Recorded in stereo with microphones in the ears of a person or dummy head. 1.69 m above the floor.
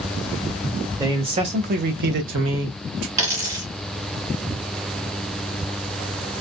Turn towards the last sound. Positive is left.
turn(degrees=-20)  # may be behind; listen again after turning